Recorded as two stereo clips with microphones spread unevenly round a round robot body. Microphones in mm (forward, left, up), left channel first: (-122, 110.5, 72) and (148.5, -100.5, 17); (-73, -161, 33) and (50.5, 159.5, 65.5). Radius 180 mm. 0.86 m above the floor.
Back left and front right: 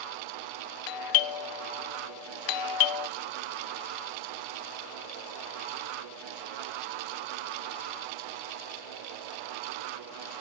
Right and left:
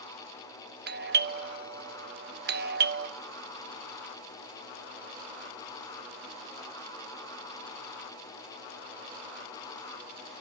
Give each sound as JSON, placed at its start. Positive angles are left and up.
{"t": 0.9, "sound": "a doorbell", "azimuth_deg": 130, "distance_m": 1.1}